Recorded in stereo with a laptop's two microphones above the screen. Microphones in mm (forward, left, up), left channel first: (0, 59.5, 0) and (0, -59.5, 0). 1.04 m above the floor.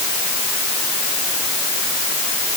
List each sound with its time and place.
Only background noise.